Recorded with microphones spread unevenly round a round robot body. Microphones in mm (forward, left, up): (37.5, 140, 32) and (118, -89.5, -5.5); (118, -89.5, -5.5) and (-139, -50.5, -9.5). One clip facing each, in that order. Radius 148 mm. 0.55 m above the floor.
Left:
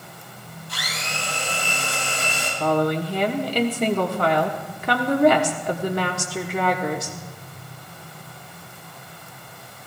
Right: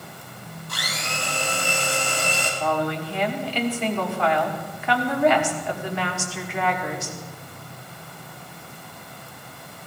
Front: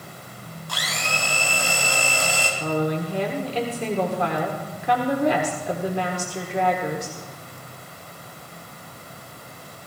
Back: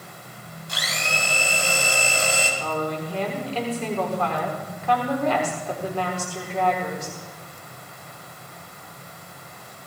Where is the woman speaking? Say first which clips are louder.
Left 6 dB, front 4 dB; 65° left, 1.4 m.